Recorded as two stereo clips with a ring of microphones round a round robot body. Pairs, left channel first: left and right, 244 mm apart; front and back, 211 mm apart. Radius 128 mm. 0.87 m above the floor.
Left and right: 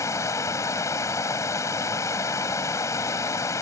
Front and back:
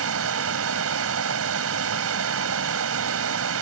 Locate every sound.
0.0 s running water: 170° left